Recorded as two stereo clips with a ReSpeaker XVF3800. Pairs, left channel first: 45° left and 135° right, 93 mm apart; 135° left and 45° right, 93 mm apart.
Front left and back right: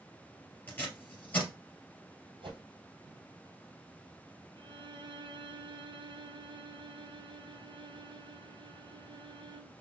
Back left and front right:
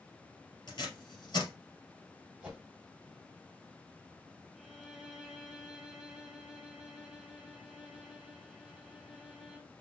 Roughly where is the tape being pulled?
Left.